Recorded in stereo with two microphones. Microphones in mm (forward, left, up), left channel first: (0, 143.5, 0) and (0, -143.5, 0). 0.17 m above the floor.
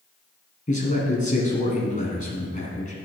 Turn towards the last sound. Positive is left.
turn(degrees=25)  # may be behind; listen again after turning